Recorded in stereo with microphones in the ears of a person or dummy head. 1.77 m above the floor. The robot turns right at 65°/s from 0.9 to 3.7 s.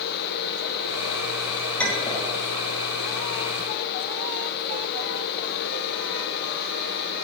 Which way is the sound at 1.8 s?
10° left (ahead or behind).